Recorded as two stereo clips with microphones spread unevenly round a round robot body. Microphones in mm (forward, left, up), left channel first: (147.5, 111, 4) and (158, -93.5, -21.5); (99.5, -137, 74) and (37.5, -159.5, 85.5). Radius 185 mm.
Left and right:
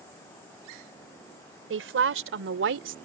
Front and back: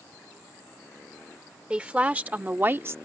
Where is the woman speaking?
85° right; by 3.0 s 105° right.